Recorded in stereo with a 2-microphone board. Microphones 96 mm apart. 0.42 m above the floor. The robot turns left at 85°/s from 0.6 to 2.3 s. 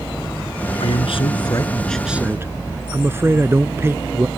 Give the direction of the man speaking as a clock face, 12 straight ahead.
9 o'clock.